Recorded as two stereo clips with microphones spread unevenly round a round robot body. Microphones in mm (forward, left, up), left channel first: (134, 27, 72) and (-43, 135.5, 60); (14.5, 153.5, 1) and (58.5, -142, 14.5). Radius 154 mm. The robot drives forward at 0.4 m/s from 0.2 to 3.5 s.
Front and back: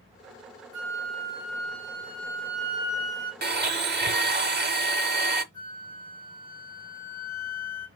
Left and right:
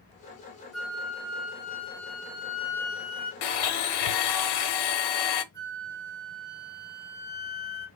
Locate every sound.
0.7 s a flute: 175° right, 1.9 m
3.4 s a blender: 100° left, 0.9 m; by 5.4 s 105° left, 0.9 m
5.5 s a flute: 165° right, 3.5 m